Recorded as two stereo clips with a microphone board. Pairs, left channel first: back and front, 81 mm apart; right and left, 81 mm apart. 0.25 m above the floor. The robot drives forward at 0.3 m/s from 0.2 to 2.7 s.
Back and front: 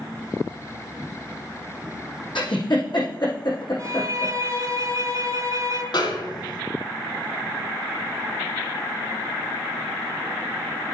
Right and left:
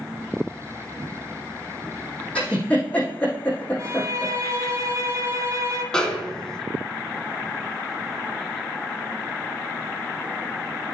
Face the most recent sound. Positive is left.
turn(degrees=-170)